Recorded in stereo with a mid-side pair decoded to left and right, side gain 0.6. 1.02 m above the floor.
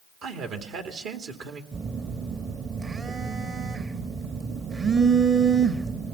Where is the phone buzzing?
35° right, 1.2 m.